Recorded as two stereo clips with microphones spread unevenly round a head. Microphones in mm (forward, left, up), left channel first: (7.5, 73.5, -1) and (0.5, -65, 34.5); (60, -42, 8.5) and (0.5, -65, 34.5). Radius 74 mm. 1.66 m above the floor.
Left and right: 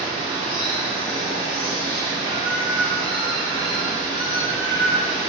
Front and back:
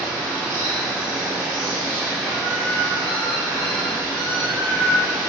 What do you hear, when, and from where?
0.0 s running water: 120° left, 1.8 m